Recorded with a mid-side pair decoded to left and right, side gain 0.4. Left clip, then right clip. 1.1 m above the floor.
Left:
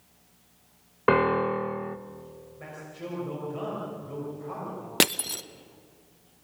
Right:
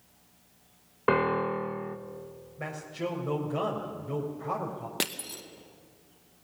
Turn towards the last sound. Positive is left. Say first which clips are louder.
# left 10 dB
turn(degrees=60)